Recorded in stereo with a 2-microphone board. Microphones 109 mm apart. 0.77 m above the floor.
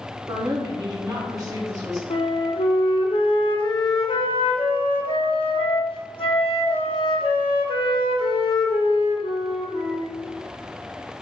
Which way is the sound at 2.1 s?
60° left (ahead or behind).